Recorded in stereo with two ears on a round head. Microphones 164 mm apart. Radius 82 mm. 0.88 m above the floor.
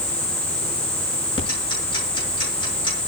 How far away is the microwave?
I don't hear a microwave.